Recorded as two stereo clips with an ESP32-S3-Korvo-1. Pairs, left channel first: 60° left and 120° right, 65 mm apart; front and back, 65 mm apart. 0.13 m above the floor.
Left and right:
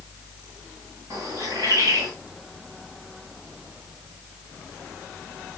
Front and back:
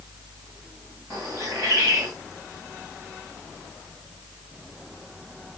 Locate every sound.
1.1 s a bird: 155° right, 8 m